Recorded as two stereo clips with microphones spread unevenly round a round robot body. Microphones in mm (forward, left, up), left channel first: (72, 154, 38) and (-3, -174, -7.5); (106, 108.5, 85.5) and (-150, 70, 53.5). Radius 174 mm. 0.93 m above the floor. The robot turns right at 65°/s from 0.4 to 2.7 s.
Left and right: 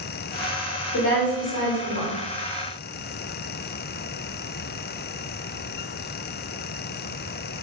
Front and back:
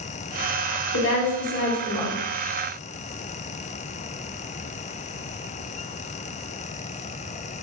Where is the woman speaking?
30° left, 1.2 m; by 2.1 s 105° left, 1.2 m.